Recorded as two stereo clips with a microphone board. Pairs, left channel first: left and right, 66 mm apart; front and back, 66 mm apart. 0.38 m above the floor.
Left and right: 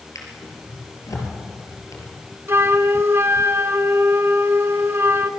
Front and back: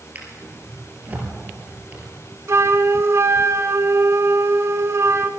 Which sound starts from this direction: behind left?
A drawer, at 0.1 s.